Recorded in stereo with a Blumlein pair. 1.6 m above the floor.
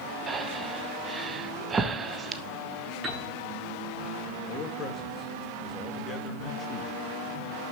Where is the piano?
20° right, 7.5 m.